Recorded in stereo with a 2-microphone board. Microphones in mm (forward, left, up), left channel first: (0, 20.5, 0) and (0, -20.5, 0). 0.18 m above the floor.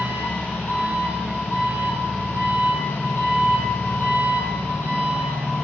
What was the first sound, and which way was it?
An engine running, 70° left (ahead or behind).